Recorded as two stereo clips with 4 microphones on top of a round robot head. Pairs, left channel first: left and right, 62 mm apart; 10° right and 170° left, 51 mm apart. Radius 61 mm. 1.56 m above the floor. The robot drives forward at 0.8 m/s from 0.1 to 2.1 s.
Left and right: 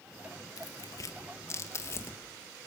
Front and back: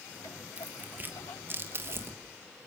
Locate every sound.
0.6 s tearing paper: 110° left, 2 m; by 2.2 s 135° left, 2.5 m